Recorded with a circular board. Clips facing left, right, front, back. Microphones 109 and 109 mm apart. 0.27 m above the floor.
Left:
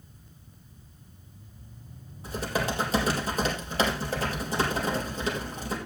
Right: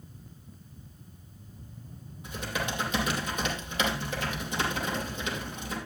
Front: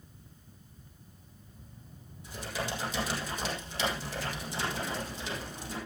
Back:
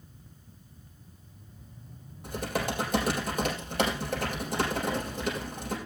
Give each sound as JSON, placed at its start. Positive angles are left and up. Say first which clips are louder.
{"t": 2.2, "sound": "typing on a keyboard", "louder": "left 5 dB, back 5 dB", "azimuth_deg": 145, "distance_m": 4.5}